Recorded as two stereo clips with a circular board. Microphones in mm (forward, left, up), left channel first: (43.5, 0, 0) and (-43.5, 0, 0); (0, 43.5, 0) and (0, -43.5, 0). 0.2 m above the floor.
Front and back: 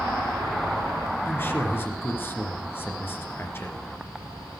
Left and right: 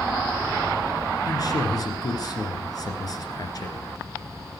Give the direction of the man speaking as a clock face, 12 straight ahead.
10 o'clock.